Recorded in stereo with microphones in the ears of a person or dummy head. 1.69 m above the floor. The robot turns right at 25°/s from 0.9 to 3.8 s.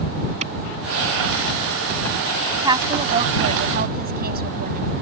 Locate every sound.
0.4 s a clap: 35° right (ahead or behind)
2.6 s a woman speaking: 20° right (ahead or behind); by 4.9 s 50° right (ahead or behind)